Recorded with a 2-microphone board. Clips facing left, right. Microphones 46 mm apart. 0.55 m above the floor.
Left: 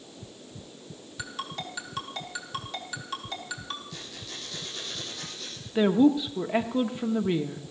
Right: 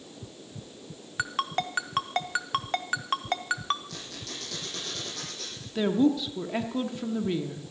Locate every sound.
1.2 s a ringtone: 50° right (ahead or behind), 0.9 m
3.9 s a squeak: 80° right, 8.5 m
5.8 s a woman speaking: 15° left (ahead or behind), 0.8 m